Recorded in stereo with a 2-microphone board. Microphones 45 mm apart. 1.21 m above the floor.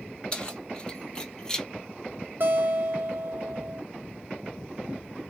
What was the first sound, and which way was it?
Keys jangling, 25° left (ahead or behind).